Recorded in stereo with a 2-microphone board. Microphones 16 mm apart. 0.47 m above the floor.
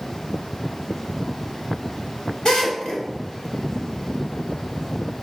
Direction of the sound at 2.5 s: 65° left (ahead or behind).